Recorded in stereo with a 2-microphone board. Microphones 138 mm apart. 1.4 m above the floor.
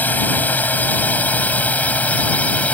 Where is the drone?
10° left (ahead or behind).